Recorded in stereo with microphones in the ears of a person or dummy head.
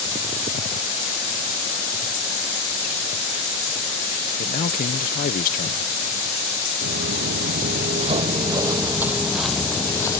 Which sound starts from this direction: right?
Footsteps, at 6.8 s.